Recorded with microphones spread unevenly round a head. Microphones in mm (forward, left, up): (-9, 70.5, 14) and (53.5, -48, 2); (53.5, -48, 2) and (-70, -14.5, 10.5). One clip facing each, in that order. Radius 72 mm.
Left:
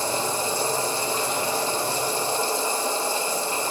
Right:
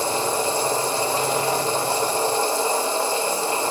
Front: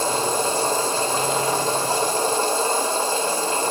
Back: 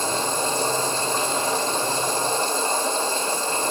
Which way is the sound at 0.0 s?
35° right.